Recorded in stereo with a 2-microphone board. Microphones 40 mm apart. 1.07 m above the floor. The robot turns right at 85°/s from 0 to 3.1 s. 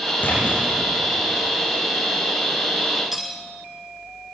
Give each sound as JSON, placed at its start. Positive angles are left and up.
{"t": 0.2, "sound": "a splash", "azimuth_deg": 45, "distance_m": 9.0}
{"t": 3.1, "sound": "cutlery clinking", "side_deg": -5, "distance_m": 2.5}